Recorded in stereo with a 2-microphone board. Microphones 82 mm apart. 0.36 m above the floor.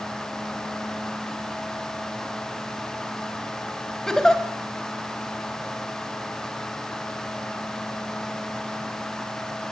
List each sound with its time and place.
4.1 s a giggle: 5° left (ahead or behind), 2.5 m